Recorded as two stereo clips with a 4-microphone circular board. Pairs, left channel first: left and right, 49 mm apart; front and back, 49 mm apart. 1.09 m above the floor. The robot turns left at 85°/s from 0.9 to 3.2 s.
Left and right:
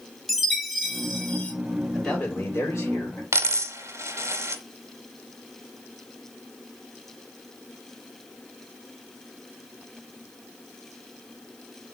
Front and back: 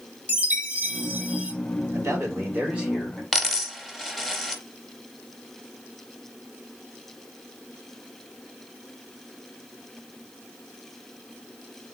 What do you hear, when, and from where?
0.3 s a chime: 170° right, 0.8 m; by 1.5 s 135° left, 0.8 m
1.9 s a man speaking: straight behind, 2 m; by 3.2 s 75° left, 2 m
3.3 s a dropped coin: 90° right, 0.9 m